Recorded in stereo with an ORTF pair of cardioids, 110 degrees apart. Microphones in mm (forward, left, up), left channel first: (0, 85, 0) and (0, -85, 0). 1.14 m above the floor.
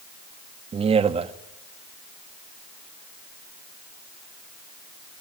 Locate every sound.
0.7 s a man speaking: 35° right, 2 m